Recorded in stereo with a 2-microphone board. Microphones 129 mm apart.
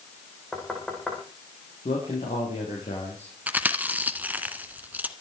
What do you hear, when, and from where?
0.5 s knocking: 5° left (ahead or behind), 6 m
1.9 s a man speaking: 60° left (ahead or behind), 5 m
3.5 s chewing: 10° right (ahead or behind), 1.3 m